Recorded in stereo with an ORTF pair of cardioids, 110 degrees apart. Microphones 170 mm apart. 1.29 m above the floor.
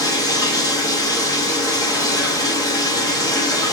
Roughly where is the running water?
Ahead.